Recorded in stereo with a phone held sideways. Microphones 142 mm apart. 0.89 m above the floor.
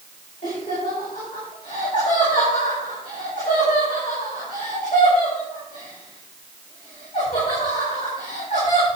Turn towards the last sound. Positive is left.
turn(degrees=65)  # may be behind; listen again after turning